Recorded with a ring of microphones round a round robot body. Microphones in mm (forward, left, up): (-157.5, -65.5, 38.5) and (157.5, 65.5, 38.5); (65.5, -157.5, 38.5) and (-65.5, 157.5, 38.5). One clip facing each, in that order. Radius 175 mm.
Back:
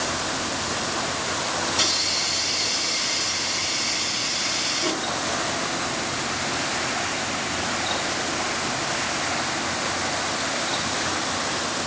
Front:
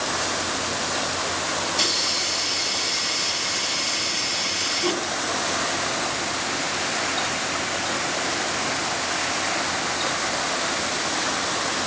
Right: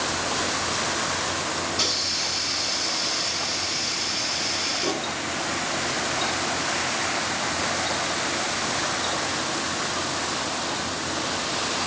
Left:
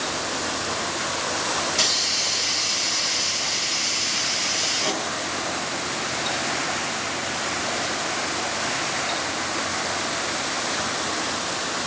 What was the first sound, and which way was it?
A hiss, 115° left.